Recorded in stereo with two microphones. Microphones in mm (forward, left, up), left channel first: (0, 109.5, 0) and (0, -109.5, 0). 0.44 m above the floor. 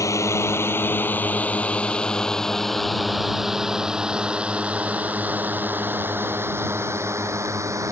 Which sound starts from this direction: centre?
A drone, at 0.0 s.